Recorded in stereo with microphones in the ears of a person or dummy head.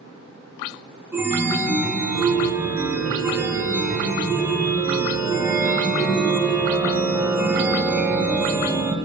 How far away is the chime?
About 1.2 m.